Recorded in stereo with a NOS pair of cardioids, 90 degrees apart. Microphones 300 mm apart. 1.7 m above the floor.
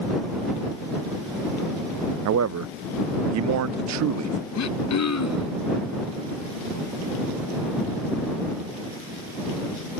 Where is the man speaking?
65° right.